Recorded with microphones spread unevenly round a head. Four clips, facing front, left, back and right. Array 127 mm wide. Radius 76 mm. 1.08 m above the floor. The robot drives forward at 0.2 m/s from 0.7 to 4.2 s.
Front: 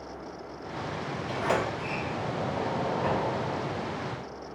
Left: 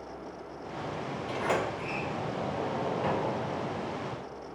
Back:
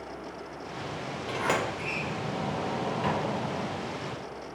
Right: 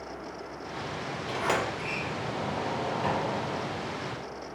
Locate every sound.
1.3 s a sliding door: 145° right, 1.1 m; by 3.8 s 155° right, 1.5 m